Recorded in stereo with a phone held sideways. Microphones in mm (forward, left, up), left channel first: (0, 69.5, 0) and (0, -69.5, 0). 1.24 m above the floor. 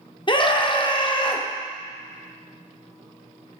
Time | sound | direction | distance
0.3 | a scream | 35° left (ahead or behind) | 0.8 m